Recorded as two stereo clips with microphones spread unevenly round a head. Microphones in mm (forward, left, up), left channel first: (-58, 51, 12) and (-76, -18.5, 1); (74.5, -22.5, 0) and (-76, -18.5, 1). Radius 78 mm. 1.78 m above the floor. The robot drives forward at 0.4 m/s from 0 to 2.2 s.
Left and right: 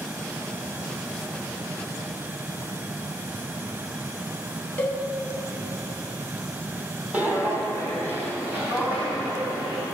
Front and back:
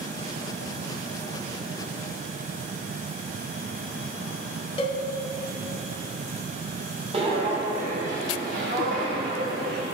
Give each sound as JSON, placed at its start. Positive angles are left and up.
{"t": 4.8, "sound": "a cowbell", "azimuth_deg": 20, "distance_m": 0.7}
{"t": 7.1, "sound": "footsteps", "azimuth_deg": -165, "distance_m": 2.0}